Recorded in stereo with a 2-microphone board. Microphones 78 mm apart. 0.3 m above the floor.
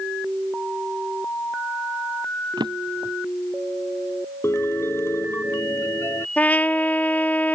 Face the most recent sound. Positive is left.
turn(degrees=20)  # may be behind; listen again after turning